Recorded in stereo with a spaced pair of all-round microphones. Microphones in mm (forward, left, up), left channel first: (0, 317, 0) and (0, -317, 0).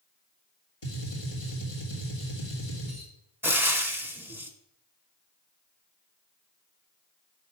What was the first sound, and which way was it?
A gunshot, 50° left (ahead or behind).